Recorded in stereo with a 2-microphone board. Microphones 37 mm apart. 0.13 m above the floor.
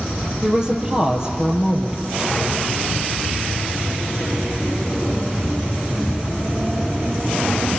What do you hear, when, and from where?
0.4 s a woman speaking: 20° right (ahead or behind), 3.5 m